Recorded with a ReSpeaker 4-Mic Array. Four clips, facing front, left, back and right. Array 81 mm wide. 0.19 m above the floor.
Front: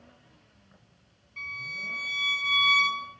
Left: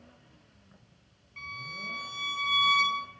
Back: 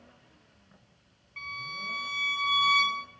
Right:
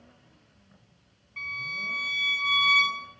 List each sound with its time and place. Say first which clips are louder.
1.4 s a violin: right 5 dB, even; 150° right, 1.1 m